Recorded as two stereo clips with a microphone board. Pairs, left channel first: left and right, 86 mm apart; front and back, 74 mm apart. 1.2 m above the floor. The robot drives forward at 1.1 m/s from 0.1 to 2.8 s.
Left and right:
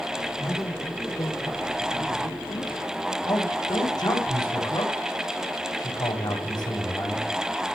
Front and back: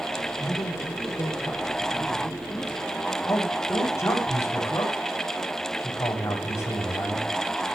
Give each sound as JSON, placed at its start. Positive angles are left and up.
{"t": 0.4, "sound": "a man speaking", "azimuth_deg": 30, "distance_m": 4.5}
{"t": 3.2, "sound": "a man speaking", "azimuth_deg": 50, "distance_m": 8.0}